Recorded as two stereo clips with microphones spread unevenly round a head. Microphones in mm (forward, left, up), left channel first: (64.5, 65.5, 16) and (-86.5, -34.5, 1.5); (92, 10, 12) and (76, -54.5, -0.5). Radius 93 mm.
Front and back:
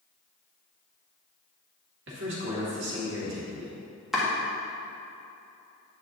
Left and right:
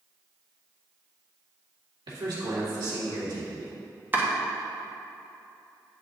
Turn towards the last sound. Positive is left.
turn(degrees=-50)